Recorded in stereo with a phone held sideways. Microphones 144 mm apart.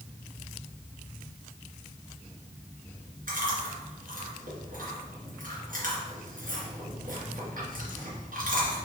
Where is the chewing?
70° right (ahead or behind), 2.5 m.